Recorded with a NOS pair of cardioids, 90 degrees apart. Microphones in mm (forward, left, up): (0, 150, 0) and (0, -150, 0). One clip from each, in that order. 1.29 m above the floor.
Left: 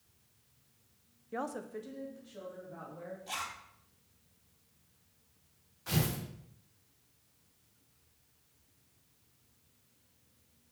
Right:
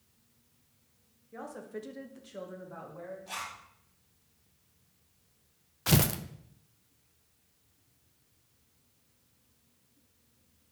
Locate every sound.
1.3 s a woman speaking: 45° left, 0.5 m; by 3.2 s 65° right, 1.9 m
3.3 s a zipper: 15° left, 2 m
5.9 s tearing paper: 65° right, 0.5 m